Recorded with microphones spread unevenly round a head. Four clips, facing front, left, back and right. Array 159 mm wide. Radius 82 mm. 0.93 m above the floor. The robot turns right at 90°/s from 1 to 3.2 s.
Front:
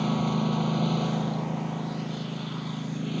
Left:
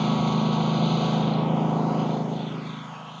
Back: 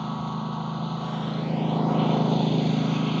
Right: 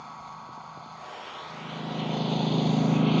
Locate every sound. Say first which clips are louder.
0.0 s a lawn mower: left 18 dB, front 4 dB; 60° left; by 3.2 s 100° right